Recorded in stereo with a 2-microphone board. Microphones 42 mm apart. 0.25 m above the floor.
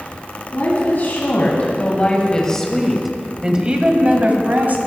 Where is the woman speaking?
55° left (ahead or behind), 1.9 m; by 4.8 s 50° right (ahead or behind), 1.6 m.